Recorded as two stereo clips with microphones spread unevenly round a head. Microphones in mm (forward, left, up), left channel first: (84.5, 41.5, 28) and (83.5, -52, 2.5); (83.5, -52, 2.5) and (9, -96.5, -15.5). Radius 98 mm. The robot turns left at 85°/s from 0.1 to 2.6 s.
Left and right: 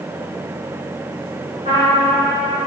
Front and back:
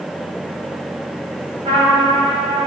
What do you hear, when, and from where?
1.6 s a trumpet: 150° right, 3.5 m; by 2.7 s 130° left, 3.5 m